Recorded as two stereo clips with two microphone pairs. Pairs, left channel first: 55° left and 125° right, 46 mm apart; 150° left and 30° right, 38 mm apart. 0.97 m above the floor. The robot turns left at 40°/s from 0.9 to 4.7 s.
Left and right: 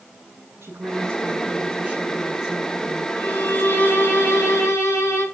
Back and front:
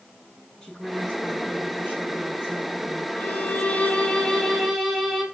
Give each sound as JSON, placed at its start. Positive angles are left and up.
{"t": 0.6, "sound": "a woman speaking", "azimuth_deg": -135, "distance_m": 8.5}
{"t": 3.2, "sound": "a violin", "azimuth_deg": 115, "distance_m": 7.0}